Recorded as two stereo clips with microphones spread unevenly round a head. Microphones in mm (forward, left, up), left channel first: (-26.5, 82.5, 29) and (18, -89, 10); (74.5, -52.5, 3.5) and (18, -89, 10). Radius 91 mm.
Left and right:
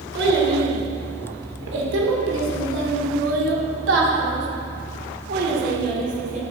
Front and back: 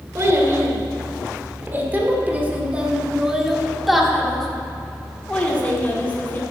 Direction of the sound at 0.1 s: 100° right.